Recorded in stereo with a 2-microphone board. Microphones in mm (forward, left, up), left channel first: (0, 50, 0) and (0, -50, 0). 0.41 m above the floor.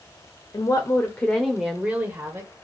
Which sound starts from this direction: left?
A woman speaking, at 0.5 s.